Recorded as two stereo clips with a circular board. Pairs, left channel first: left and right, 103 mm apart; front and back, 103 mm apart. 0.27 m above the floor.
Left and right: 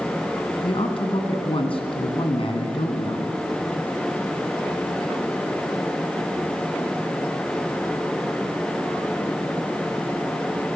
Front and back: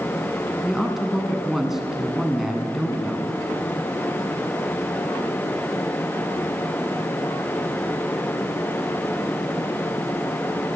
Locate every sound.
0.6 s a man speaking: 95° left, 3 m